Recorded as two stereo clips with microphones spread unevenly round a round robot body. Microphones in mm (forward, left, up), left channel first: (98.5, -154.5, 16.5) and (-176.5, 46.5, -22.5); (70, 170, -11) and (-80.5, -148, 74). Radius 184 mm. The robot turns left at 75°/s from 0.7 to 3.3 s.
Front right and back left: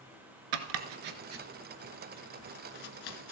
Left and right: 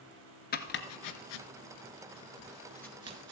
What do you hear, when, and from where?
0.5 s chopping: 135° left, 1.3 m; by 3.3 s 60° right, 1.3 m